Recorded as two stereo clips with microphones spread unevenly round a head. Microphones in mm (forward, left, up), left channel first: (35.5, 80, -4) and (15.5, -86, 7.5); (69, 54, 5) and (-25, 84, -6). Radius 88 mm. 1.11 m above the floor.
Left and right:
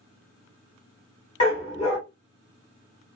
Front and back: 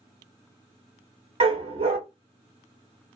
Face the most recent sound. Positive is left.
turn(degrees=140)